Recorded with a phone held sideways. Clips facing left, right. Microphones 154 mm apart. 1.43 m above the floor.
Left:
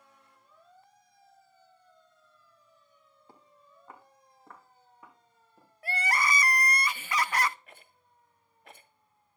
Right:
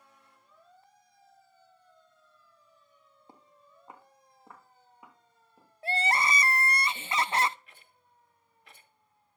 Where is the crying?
25° right (ahead or behind), 0.5 m.